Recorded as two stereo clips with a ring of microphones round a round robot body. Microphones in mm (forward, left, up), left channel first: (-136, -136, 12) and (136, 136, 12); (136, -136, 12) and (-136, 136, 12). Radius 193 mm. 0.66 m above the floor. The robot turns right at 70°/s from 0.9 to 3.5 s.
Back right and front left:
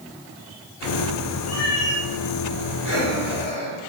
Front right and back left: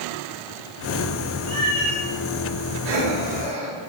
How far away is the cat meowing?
About 4.5 m.